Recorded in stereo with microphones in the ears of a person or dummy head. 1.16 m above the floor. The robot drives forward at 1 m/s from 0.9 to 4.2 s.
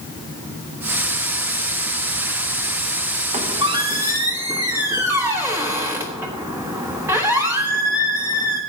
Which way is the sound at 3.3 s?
30° right (ahead or behind).